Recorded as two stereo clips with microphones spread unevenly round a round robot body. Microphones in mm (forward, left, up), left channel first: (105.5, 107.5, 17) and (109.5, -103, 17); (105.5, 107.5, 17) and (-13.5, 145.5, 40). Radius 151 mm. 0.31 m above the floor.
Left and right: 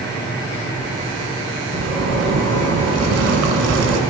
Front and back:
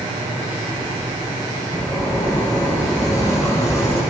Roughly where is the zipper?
Right.